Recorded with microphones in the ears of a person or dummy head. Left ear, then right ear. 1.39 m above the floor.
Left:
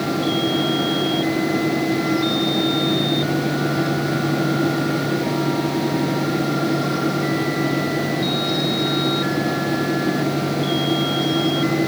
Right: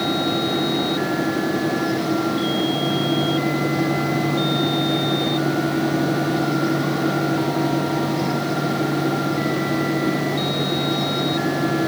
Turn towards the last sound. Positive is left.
No sound to turn to.